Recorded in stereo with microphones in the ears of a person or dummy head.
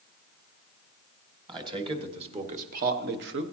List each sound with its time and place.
1.5 s a man speaking: 20° right (ahead or behind), 2 m; by 3.4 s 65° right (ahead or behind), 1.1 m